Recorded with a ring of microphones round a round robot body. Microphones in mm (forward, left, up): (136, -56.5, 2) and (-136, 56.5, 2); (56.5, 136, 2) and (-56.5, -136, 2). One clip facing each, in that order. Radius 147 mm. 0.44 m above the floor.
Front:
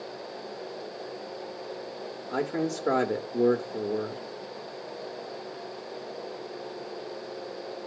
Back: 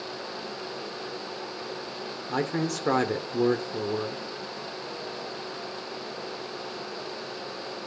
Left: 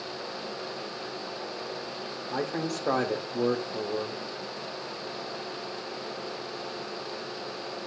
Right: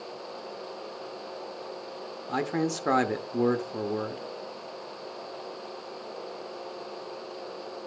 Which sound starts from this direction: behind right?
A man speaking, at 2.3 s.